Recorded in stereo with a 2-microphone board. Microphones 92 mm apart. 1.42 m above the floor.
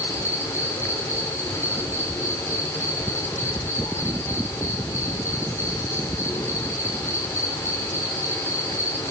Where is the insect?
30° left (ahead or behind), 6.5 m.